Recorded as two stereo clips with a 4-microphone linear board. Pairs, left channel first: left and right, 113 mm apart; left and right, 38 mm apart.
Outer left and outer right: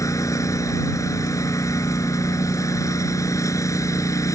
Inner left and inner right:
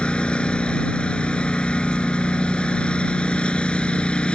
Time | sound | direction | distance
0.0 | a lawn mower | 30° left (ahead or behind) | ?